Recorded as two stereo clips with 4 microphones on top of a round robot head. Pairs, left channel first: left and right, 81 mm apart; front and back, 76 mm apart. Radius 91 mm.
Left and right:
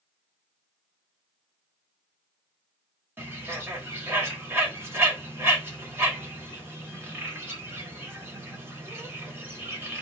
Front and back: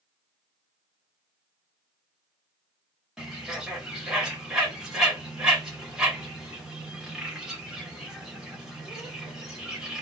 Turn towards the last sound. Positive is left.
turn(degrees=-105)